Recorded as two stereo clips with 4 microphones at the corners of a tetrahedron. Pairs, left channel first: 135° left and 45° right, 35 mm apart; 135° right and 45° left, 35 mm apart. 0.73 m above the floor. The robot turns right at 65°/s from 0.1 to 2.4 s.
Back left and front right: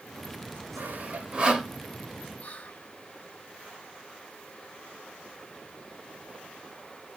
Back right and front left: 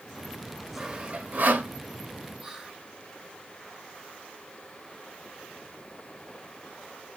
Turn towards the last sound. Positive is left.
turn(degrees=120)